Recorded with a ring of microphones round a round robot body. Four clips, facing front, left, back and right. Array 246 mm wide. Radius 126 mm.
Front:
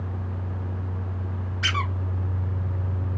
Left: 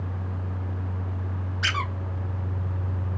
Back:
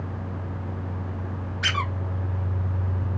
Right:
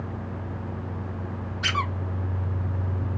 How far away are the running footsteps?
No running footsteps in this recording.